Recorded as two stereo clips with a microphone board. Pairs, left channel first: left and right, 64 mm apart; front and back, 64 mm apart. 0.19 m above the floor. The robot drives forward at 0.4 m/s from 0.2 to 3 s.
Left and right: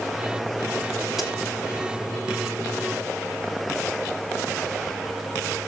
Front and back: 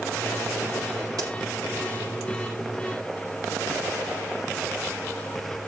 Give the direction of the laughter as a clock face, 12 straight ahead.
No laughter in this recording.